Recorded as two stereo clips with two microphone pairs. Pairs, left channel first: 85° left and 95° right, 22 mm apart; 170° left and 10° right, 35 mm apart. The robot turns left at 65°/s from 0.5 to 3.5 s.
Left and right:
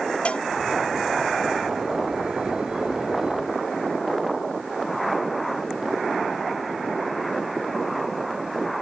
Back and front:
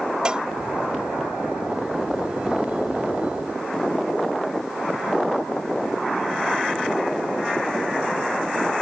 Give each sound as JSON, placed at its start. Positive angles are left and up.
{"t": 0.2, "sound": "a cowbell", "azimuth_deg": 55}